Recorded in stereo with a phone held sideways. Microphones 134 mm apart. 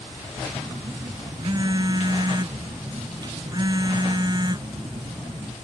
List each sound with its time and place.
0.6 s a phone buzzing: 30° right (ahead or behind)